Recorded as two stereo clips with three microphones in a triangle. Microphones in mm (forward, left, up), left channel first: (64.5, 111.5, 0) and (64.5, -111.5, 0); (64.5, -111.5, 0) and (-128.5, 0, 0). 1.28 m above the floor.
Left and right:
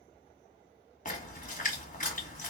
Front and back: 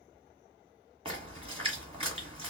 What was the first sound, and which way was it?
A splash, 100° left.